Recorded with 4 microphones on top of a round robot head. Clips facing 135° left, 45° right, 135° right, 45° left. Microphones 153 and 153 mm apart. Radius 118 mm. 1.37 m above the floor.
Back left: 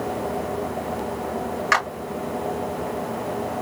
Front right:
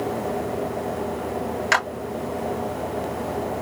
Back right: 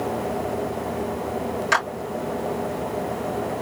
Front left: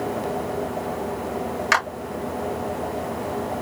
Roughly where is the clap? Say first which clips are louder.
Even, front left 1 dB; ahead.